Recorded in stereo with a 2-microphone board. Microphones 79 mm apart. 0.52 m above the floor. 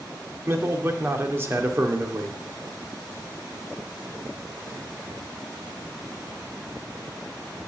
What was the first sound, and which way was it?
A man speaking, 30° right (ahead or behind).